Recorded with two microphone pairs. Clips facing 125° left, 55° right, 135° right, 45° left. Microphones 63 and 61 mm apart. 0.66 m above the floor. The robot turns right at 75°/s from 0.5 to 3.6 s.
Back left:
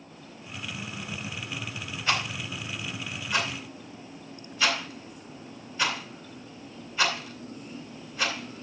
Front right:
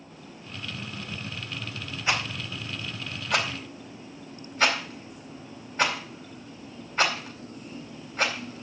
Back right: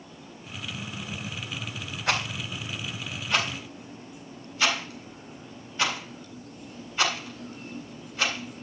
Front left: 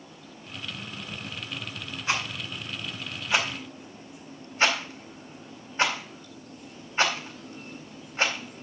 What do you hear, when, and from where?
2.1 s a rattle: 130° right, 4 m; by 8.6 s 15° right, 4 m